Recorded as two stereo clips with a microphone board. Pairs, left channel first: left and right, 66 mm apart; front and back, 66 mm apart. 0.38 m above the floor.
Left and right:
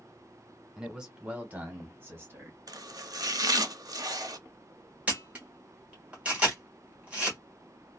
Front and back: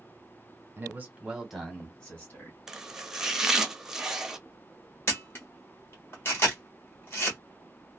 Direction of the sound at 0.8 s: 165° right.